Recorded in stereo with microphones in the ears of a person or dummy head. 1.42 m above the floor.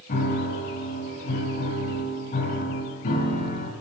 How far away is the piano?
About 2 m.